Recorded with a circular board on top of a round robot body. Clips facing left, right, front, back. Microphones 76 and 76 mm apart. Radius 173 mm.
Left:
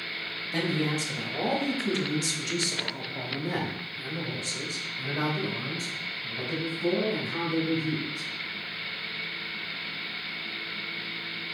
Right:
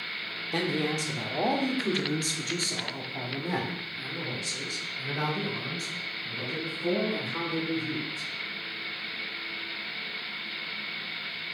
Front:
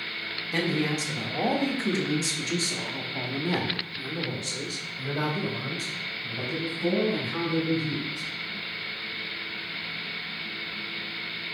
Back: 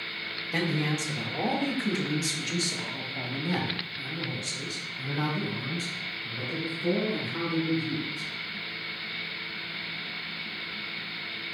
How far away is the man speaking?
About 2.5 m.